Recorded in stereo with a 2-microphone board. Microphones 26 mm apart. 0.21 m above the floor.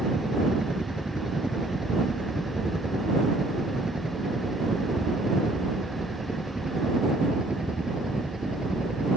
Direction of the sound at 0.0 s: 30° right (ahead or behind).